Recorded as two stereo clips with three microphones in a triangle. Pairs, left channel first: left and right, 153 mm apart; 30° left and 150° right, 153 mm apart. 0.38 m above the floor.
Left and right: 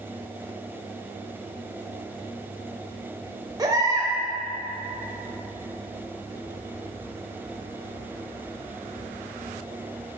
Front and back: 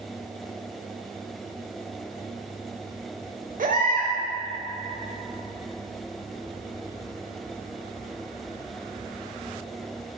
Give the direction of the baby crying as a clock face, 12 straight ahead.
5 o'clock.